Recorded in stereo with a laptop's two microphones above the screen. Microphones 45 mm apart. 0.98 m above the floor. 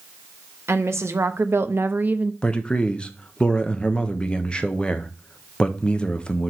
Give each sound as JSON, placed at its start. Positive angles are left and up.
{"t": 0.7, "sound": "a woman speaking", "side_deg": -70, "distance_m": 1.1}
{"t": 2.4, "sound": "a man speaking", "side_deg": 25, "distance_m": 1.0}